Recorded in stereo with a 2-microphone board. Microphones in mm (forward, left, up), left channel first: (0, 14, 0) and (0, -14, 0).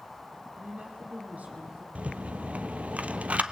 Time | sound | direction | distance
0.6 | a woman speaking | 70° right (ahead or behind) | 5 m
1.9 | a rattle | 55° right (ahead or behind) | 1.1 m